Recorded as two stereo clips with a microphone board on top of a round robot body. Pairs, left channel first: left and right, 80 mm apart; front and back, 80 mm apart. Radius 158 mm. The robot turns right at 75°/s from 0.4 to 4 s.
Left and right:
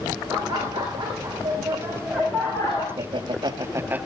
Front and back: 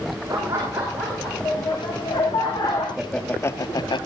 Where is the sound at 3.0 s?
95° right, 1.7 m; by 4.1 s 20° right, 1.7 m.